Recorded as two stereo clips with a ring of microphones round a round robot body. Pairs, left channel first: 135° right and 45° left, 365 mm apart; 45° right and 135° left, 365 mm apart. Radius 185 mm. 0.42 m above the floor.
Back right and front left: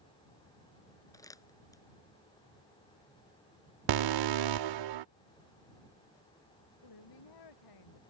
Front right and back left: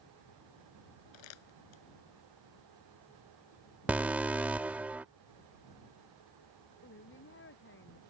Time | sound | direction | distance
1.1 | crumpling | 55° right | ?
3.9 | an alarm | 50° left | ?
6.8 | a woman speaking | 105° right | ?